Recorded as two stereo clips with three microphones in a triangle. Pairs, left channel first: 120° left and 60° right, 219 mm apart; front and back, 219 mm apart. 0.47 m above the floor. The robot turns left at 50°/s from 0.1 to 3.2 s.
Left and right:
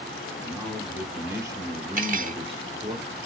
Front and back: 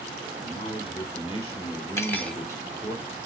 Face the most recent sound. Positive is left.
turn(degrees=-130)